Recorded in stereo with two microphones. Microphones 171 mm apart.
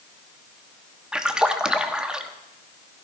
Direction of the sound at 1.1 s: 5° right (ahead or behind).